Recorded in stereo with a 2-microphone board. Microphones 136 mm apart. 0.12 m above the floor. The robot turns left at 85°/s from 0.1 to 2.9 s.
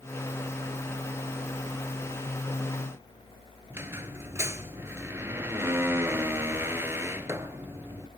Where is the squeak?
15° right (ahead or behind), 1.2 m.